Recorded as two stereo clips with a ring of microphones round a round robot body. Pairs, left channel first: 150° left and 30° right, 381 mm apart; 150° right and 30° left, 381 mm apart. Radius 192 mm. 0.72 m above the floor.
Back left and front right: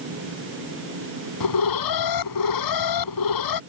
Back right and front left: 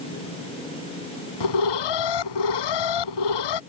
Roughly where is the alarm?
Behind.